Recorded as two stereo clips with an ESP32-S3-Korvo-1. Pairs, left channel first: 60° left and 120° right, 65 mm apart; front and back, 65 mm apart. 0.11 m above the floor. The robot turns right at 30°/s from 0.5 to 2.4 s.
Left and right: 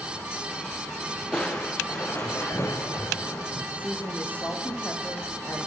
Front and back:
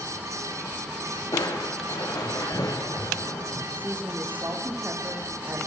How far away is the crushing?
About 4 m.